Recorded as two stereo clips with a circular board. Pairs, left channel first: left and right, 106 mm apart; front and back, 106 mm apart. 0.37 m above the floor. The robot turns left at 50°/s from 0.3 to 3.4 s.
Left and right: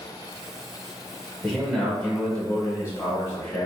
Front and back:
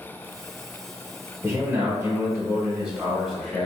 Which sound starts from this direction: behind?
A man speaking, at 1.4 s.